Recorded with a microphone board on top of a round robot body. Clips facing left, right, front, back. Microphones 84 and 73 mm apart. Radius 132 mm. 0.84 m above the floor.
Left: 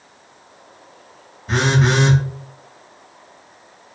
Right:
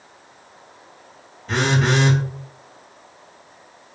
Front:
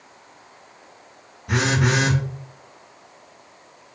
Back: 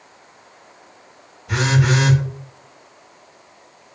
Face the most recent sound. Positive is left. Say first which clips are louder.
# left 2 dB, back 2 dB
turn(degrees=20)